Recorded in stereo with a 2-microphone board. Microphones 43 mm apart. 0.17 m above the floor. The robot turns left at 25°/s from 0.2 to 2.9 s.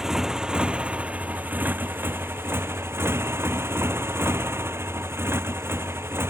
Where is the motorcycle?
15° right; by 6.3 s 80° right.